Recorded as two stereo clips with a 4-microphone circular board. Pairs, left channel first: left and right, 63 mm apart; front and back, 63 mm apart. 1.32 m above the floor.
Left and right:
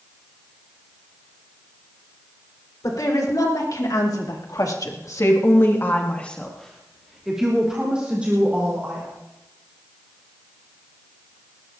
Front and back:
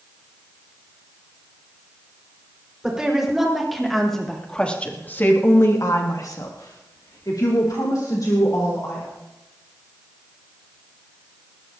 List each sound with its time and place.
2.8 s a woman speaking: 100° left, 4.5 m; by 9.1 s 25° right, 5 m